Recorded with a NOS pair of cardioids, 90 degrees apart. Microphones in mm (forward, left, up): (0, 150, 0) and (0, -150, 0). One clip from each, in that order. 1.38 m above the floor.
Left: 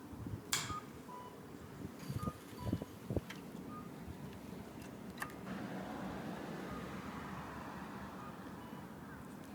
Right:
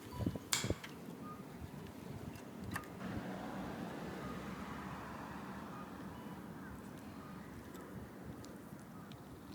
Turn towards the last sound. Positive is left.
turn(degrees=-10)